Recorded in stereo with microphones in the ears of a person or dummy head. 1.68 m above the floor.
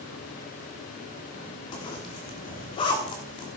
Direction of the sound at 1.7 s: 25° left (ahead or behind).